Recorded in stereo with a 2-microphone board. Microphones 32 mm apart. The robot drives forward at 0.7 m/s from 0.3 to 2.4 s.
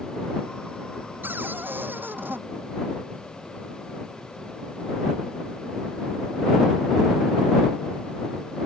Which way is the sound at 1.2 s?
75° right (ahead or behind).